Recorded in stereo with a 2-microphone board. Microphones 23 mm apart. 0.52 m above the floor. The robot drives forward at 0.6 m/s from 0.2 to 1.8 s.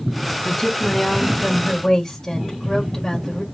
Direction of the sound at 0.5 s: 20° left (ahead or behind).